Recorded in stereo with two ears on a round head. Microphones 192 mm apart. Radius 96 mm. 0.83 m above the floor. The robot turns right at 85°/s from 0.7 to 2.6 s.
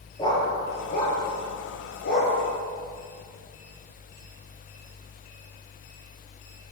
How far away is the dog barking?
About 8 m.